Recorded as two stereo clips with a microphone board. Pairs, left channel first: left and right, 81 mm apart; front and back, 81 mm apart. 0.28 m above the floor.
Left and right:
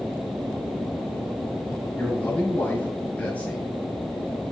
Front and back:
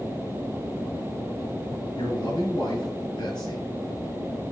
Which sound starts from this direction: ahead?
A man speaking, at 2.0 s.